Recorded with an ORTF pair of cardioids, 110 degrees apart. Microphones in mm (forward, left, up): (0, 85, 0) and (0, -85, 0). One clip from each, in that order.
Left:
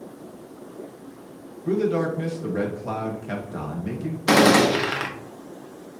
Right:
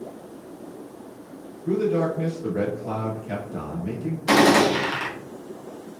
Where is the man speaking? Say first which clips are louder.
Even; 25° left, 1.2 m.